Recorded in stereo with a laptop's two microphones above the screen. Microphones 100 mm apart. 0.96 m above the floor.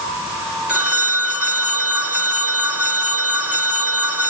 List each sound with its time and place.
0.7 s a phone ringing: 10° right (ahead or behind), 5 m